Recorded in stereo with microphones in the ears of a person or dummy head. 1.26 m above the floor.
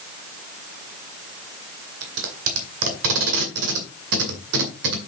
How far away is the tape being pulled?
About 2 m.